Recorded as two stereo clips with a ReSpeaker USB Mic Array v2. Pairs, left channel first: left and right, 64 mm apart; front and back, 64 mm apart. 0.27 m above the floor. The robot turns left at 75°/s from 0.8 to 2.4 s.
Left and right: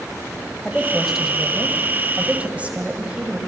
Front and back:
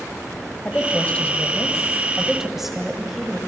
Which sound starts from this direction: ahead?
A woman speaking, at 0.7 s.